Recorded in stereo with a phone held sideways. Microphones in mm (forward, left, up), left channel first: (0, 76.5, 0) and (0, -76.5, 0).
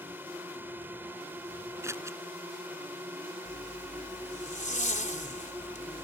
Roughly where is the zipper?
Left.